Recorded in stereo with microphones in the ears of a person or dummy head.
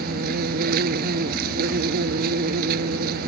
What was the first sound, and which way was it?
An insect, 50° right (ahead or behind).